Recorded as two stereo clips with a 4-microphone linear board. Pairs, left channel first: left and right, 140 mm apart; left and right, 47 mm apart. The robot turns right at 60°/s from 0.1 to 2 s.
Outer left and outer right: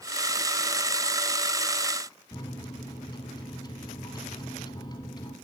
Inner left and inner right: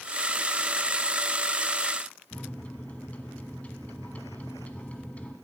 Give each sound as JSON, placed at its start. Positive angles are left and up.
{"t": 2.3, "sound": "a microwave", "side_deg": 30, "distance_m": 1.3}